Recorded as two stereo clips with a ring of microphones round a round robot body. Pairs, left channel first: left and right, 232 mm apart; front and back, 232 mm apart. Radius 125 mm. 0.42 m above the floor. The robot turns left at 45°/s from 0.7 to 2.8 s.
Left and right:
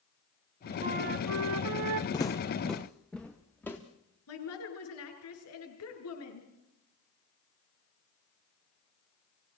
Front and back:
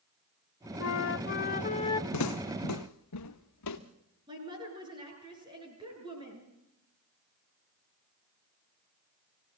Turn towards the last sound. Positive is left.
turn(degrees=105)